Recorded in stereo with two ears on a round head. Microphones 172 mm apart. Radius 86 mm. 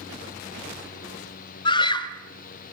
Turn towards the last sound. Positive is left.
turn(degrees=25)  # may be behind; listen again after turning